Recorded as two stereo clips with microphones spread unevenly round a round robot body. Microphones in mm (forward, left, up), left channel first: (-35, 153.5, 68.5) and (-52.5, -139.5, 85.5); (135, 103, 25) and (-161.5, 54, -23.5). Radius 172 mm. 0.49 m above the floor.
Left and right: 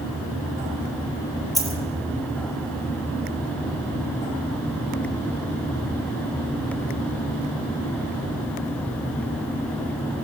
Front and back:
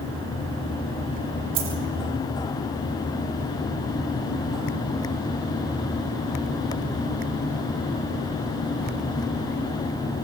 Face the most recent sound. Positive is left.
turn(degrees=175)